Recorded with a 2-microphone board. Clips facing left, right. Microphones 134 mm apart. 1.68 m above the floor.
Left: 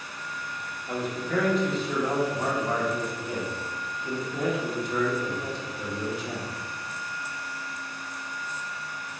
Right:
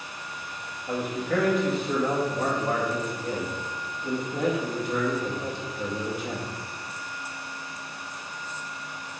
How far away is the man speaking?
About 2 m.